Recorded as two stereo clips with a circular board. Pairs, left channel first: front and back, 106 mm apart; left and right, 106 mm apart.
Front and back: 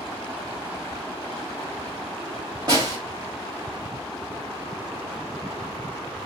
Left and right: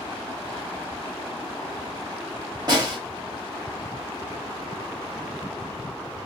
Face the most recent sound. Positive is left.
turn(degrees=-135)